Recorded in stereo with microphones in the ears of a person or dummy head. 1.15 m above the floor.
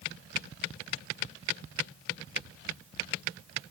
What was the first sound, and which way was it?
Only background noise.